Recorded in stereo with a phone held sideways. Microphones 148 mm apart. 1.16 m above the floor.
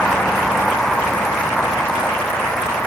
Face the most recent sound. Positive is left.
turn(degrees=5)  # may be behind; listen again after turning